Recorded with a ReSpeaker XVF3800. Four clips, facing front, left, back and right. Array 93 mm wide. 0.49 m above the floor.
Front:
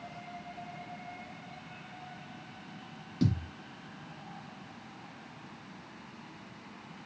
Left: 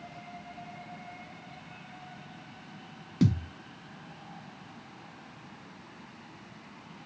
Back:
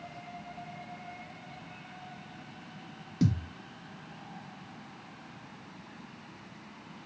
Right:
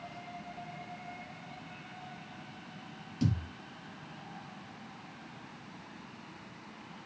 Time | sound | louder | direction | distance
3.2 | a thud | left 6 dB, back 1 dB | 100° left | 1.1 m